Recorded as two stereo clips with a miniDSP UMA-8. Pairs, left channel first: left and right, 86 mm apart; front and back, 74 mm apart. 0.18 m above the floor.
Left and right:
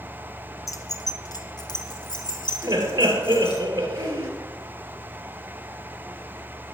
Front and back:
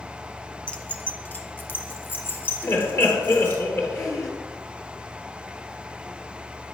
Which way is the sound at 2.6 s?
40° right.